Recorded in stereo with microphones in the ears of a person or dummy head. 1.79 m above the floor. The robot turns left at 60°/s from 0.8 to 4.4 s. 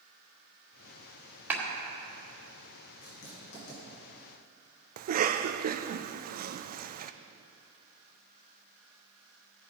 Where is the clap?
10° right (ahead or behind), 2 m; by 1.6 s 15° right (ahead or behind), 2 m.